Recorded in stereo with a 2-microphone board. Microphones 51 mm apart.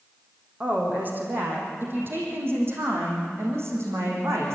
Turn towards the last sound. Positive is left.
turn(degrees=-65)  # may be behind; listen again after turning